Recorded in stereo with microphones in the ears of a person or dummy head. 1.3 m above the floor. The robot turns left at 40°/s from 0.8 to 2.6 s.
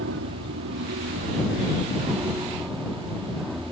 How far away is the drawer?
I don't hear a drawer.